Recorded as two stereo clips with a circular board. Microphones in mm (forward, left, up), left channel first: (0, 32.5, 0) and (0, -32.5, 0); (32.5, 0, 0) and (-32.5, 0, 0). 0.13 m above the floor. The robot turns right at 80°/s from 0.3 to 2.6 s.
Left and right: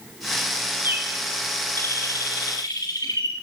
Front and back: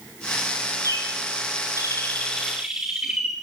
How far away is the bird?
About 5 m.